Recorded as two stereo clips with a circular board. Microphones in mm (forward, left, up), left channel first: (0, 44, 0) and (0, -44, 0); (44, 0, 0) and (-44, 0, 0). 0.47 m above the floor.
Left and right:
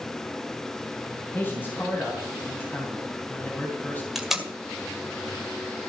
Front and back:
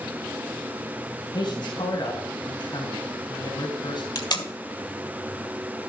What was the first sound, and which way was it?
A man speaking, 25° left.